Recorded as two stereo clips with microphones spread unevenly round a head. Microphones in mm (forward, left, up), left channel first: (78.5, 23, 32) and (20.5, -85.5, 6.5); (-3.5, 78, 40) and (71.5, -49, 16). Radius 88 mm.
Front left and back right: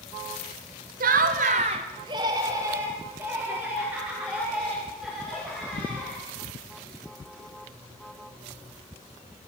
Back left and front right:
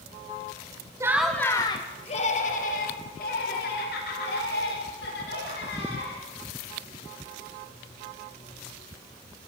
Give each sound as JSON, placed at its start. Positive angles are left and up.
{"t": 1.0, "sound": "laughter", "azimuth_deg": -130, "distance_m": 1.1}